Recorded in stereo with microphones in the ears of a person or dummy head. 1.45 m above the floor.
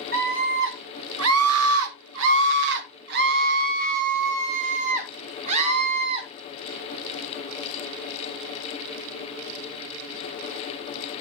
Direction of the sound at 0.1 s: 50° right (ahead or behind).